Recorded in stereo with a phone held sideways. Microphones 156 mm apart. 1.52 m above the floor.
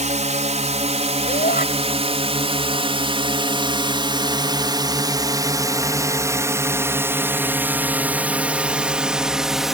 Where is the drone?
50° right (ahead or behind); by 9.7 s centre (ahead or behind).